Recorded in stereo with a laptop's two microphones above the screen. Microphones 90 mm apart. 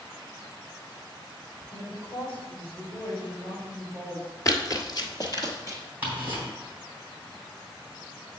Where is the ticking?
20° right (ahead or behind), 3 m.